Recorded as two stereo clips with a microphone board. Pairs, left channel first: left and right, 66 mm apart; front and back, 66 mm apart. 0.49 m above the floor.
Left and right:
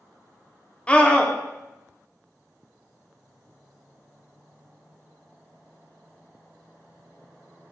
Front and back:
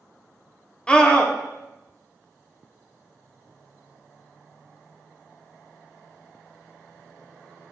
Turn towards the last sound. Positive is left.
turn(degrees=50)